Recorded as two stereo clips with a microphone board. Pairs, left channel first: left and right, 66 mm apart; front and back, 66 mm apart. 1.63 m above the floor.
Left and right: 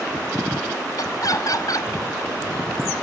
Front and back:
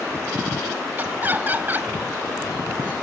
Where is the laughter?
120° left.